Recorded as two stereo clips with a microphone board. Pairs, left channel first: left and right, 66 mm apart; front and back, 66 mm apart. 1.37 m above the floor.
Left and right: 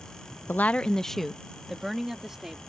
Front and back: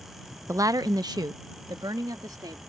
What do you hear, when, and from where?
0.5 s a woman speaking: 140° left; by 2.6 s 175° right